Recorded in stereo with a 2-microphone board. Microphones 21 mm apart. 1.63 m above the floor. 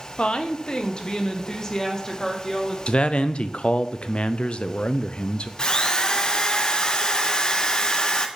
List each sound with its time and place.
0.2 s a woman speaking: 60° left (ahead or behind), 1.1 m; by 2.8 s 25° left (ahead or behind), 2.5 m
2.9 s a man speaking: 55° left (ahead or behind), 0.7 m
5.6 s a drill: 40° left (ahead or behind), 1.0 m